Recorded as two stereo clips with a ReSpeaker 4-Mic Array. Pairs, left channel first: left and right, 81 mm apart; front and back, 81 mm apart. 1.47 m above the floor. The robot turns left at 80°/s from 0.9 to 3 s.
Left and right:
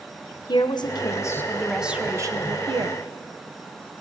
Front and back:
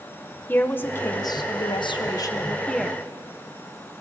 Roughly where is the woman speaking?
Ahead left.